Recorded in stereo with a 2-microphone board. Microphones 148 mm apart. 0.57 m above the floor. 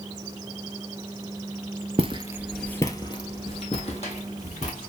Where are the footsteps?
40° right (ahead or behind), 0.7 m; by 4.9 s 55° left (ahead or behind), 2.5 m.